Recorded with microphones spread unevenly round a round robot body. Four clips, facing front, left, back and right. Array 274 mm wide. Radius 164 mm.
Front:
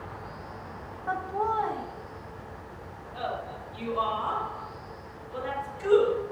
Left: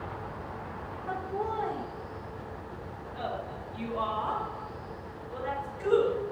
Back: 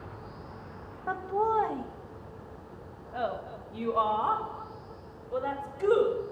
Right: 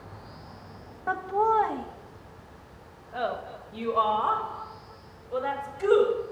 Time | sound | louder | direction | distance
1.1 | laughter | right 9 dB, back 1 dB | 90° right | 1.3 m